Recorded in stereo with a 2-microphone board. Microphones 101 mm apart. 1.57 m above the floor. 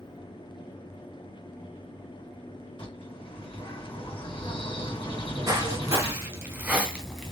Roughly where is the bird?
Left.